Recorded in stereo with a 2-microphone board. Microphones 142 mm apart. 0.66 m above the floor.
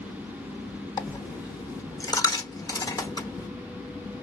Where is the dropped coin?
25° left (ahead or behind), 0.9 m.